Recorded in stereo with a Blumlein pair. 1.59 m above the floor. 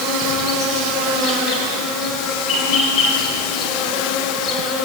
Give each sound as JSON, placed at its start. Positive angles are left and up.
{"t": 0.0, "sound": "an insect", "azimuth_deg": 35, "distance_m": 2.0}